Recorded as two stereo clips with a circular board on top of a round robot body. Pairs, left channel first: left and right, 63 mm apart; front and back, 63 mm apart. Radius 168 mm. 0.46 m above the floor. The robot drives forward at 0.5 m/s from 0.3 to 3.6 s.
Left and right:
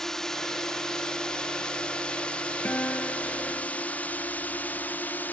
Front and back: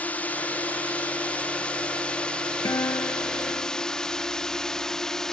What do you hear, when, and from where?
0.0 s a drone: 20° left; by 5.3 s 75° left
2.6 s a guitar: 30° left